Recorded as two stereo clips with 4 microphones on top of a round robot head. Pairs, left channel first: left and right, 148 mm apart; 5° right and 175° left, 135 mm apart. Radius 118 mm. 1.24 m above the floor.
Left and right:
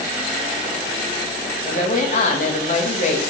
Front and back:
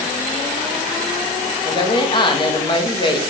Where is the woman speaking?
45° left, 1.8 m.